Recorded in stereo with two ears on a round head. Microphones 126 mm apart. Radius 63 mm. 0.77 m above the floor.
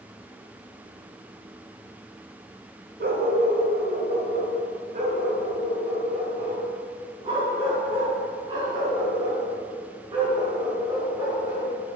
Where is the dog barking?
75° right (ahead or behind), 1.5 m; by 11.7 s 30° right (ahead or behind), 5.5 m.